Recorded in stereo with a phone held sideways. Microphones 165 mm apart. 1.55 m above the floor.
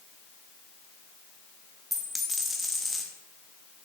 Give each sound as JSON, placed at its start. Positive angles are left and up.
{"t": 1.9, "sound": "a dropped coin", "side_deg": 0, "distance_m": 0.9}